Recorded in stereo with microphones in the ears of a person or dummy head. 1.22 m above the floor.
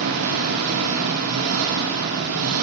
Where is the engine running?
85° right, 2 m.